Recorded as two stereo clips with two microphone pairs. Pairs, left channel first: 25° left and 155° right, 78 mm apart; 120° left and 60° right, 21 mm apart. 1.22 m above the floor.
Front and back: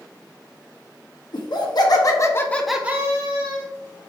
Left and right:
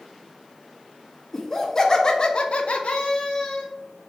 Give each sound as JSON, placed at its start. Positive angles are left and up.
{"t": 1.3, "sound": "laughter", "azimuth_deg": 50, "distance_m": 1.4}